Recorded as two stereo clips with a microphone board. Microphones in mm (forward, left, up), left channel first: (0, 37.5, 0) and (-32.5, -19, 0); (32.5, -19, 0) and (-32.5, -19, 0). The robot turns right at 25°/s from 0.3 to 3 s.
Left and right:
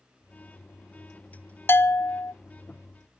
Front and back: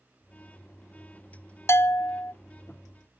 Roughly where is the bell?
Ahead.